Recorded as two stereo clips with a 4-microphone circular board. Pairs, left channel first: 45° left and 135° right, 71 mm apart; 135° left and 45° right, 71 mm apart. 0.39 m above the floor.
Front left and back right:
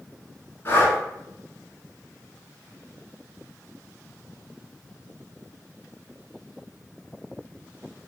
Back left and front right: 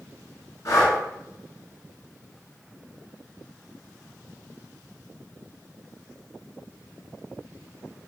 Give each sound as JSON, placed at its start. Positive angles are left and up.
{"t": 0.7, "sound": "breathing", "azimuth_deg": 95, "distance_m": 1.1}